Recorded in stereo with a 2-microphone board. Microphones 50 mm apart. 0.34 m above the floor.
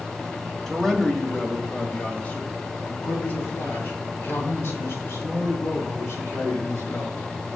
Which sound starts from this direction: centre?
A man speaking, at 0.7 s.